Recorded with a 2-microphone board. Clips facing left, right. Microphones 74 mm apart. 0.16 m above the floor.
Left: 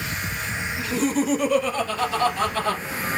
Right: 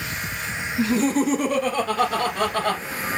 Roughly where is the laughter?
Right.